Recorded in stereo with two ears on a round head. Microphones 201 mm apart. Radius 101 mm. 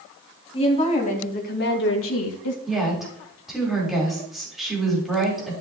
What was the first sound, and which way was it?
A woman speaking, 25° left (ahead or behind).